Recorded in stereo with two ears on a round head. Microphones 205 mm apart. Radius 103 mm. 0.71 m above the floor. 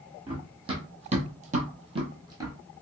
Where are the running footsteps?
20° right (ahead or behind), 1.6 m; by 2.6 s 15° right (ahead or behind), 1.4 m.